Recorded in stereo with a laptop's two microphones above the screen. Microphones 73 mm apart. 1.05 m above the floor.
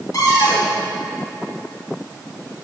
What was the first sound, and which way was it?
A cupboard door, 55° left (ahead or behind).